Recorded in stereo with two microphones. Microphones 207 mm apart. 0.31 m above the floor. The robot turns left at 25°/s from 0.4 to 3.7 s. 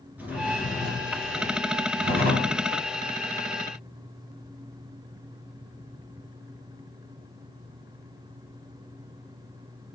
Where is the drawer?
10° right, 3 m; by 2.6 s 65° right, 3 m.